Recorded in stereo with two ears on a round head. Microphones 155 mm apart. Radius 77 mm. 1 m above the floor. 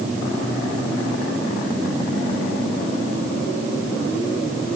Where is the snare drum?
No snare drum in this recording.